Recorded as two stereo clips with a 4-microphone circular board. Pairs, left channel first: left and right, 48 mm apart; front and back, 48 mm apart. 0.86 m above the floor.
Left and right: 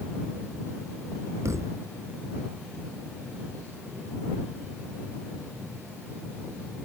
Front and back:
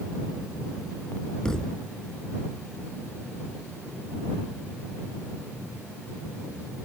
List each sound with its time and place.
1.4 s a thud: 75° right